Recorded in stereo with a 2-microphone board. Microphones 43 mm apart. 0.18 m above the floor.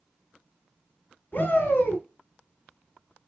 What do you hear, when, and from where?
1.3 s a shout: 40° left (ahead or behind), 1.3 m